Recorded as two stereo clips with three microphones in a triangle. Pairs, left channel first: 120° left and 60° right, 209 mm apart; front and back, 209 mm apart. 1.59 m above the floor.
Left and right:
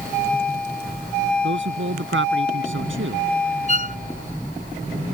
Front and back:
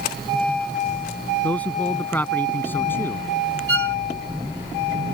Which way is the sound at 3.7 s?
175° left.